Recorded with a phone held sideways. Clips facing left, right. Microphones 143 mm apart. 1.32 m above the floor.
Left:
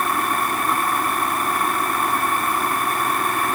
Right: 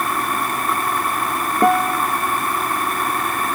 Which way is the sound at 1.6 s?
85° right.